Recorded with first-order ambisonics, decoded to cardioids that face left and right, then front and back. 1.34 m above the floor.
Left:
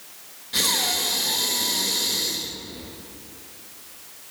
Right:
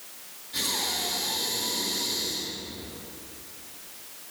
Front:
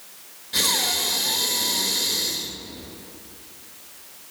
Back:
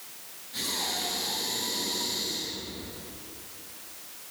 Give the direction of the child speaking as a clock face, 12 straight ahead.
I don't hear a child speaking.